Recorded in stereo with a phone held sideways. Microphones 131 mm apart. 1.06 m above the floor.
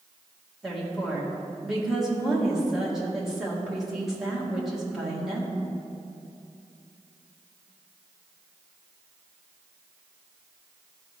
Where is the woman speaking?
5° right (ahead or behind), 2 m.